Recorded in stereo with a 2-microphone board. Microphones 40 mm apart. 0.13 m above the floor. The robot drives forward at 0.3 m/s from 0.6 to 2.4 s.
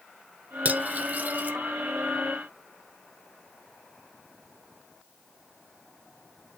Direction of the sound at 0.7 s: 40° right (ahead or behind).